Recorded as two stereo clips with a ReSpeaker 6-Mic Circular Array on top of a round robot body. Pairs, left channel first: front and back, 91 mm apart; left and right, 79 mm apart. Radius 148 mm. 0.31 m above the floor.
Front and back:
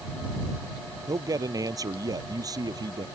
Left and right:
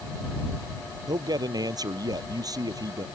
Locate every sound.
1.1 s a man speaking: 125° right; by 3.0 s 130° right